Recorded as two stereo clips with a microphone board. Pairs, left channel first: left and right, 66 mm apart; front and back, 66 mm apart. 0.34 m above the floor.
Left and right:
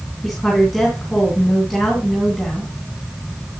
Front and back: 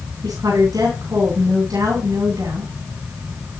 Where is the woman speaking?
175° left, 3.5 m.